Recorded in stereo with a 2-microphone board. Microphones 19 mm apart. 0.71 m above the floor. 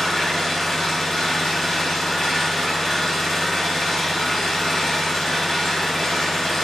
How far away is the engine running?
About 1.7 m.